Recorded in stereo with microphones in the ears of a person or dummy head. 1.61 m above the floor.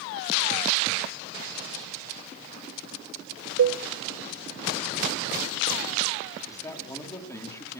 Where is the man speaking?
20° left (ahead or behind), 4 m.